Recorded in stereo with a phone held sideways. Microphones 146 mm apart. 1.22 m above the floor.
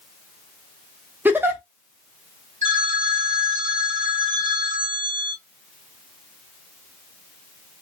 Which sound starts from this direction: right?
A phone ringing, at 2.6 s.